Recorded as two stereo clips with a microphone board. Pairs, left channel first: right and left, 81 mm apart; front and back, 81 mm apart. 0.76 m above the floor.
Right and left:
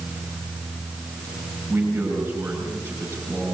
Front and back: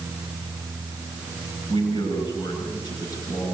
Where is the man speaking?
25° left, 7 m.